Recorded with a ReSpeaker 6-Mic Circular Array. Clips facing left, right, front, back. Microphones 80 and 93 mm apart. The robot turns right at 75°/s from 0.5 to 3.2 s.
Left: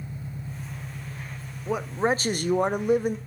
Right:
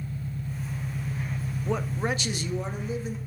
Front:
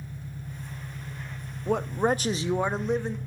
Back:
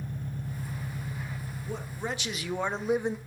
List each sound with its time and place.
0.0 s an engine running: 155° left, 0.9 m; by 3.3 s straight ahead, 0.9 m
1.7 s a man speaking: 5° left, 0.8 m; by 3.2 s 115° left, 0.8 m